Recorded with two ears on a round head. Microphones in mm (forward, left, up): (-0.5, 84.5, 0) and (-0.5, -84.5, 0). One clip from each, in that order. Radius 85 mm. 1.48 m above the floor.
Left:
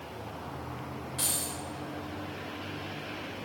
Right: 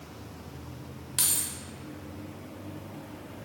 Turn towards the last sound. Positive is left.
turn(degrees=-60)  # may be behind; listen again after turning